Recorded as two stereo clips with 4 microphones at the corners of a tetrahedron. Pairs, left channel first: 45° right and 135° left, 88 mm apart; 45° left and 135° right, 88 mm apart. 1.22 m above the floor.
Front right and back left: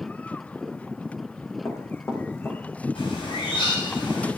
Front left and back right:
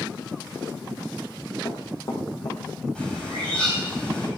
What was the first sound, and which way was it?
Running footsteps, 10° left.